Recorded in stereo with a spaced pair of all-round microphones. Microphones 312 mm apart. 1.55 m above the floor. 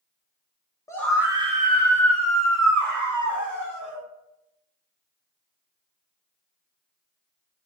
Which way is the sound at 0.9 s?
10° left (ahead or behind).